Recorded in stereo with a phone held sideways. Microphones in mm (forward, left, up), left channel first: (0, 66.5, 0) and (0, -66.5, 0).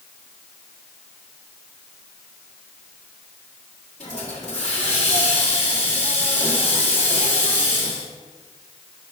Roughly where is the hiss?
Left.